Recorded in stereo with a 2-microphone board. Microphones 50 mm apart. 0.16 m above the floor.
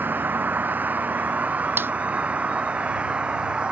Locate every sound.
0.0 s a vehicle: 40° right (ahead or behind); by 3.7 s 20° right (ahead or behind)
1.8 s a snare drum: 45° right (ahead or behind)